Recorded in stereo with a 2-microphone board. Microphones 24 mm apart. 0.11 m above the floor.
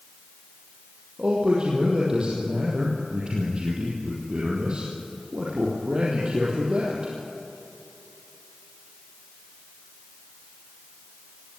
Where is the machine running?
I don't hear a machine running.